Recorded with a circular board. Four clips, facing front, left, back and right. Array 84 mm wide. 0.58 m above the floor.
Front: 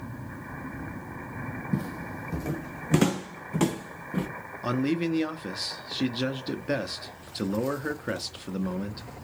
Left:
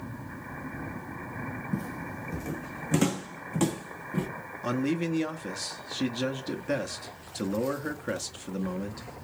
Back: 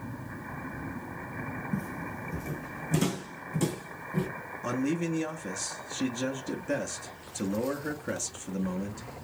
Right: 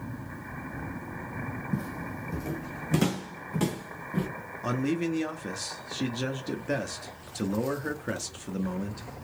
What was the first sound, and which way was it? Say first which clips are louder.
Footsteps: right 1 dB, front 5 dB; straight ahead.